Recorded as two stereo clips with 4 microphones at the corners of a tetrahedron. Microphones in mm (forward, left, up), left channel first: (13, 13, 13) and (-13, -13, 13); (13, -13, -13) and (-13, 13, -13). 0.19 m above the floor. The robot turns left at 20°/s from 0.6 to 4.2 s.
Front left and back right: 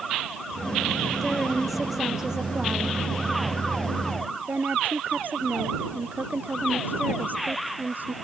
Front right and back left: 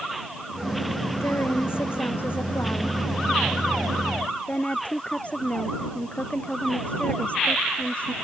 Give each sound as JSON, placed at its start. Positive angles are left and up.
{"t": 1.2, "sound": "a woman speaking", "azimuth_deg": -40}